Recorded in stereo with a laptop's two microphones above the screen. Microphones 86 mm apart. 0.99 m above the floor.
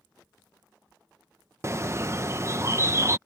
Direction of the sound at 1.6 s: 35° right (ahead or behind).